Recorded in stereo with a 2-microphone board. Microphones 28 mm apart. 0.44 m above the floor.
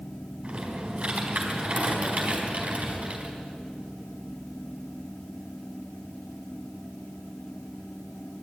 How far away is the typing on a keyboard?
About 4 m.